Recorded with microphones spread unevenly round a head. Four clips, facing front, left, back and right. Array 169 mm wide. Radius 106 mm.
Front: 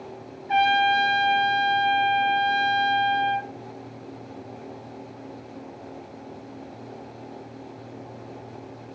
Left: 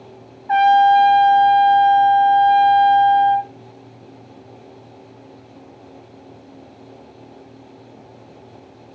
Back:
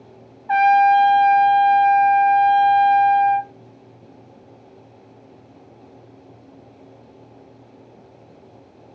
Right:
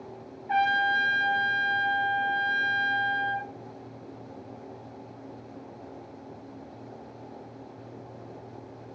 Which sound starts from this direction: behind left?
A trumpet, at 0.5 s.